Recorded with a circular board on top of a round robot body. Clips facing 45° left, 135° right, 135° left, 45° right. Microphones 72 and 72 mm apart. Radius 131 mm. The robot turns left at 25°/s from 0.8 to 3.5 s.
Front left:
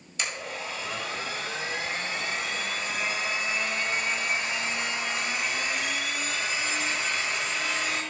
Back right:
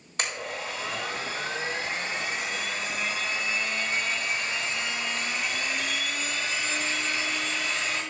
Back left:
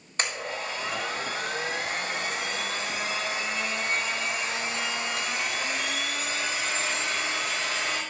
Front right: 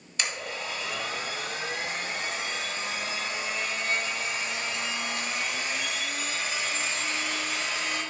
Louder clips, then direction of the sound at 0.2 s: Back right 2 dB, back left 2 dB; 175° right.